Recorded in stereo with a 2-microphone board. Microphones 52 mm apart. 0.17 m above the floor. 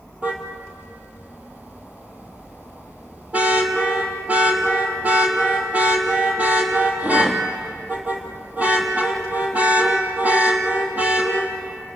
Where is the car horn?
25° right (ahead or behind), 3 m.